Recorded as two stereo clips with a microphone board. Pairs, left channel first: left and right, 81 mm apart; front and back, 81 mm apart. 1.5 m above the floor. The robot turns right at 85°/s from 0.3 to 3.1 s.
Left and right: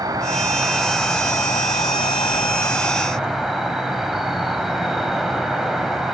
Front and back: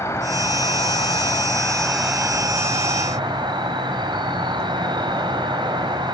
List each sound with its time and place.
0.0 s an insect: 55° right, 3.5 m; by 6.1 s 175° right, 3.5 m